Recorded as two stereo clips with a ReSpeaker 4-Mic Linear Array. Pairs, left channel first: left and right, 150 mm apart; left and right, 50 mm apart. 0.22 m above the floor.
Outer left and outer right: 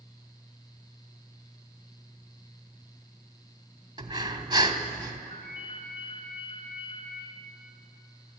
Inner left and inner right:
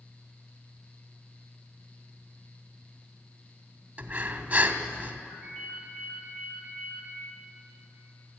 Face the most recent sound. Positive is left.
turn(degrees=30)  # may be behind; listen again after turning